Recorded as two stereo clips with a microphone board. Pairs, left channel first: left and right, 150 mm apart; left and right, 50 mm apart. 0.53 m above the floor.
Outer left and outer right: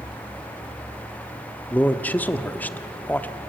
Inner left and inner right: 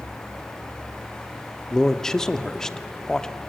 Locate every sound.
1.7 s a man speaking: 10° left (ahead or behind), 0.8 m